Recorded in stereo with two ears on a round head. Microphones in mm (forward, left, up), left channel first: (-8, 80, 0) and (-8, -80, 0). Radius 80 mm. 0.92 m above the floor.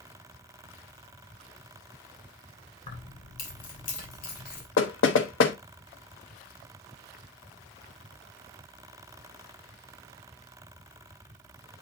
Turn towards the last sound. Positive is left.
turn(degrees=80)